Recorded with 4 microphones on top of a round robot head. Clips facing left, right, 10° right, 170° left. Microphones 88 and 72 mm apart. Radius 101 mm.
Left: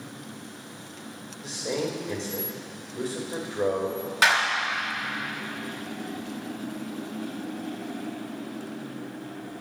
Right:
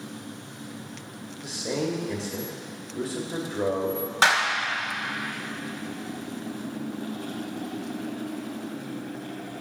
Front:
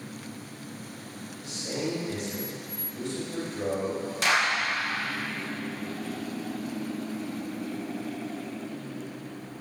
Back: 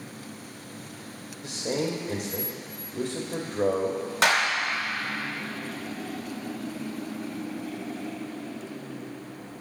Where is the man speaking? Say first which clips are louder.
Right 1 dB, back 4 dB; 175° right, 1.6 m.